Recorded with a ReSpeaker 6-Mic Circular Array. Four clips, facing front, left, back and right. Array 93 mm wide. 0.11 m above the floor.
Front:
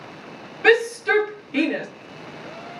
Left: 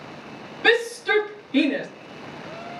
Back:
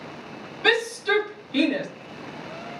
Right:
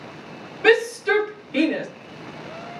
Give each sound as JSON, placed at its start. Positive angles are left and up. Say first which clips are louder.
{"t": 0.6, "sound": "a shout", "louder": "right 3 dB, front 5 dB", "azimuth_deg": -40, "distance_m": 1.8}